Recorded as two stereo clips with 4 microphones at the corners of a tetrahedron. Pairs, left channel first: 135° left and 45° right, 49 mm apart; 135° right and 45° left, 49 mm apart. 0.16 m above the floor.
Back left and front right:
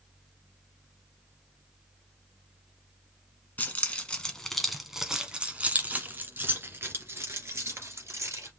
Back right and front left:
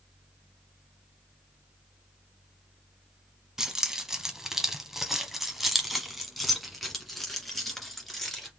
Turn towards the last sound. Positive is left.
turn(degrees=-50)